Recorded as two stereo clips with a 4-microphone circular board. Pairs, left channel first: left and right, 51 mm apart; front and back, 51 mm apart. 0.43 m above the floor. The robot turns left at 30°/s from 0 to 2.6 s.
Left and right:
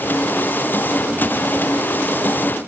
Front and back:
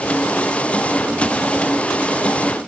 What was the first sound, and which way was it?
Only background noise.